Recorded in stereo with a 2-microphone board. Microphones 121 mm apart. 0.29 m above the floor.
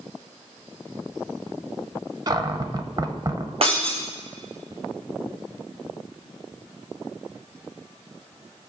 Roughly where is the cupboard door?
Right.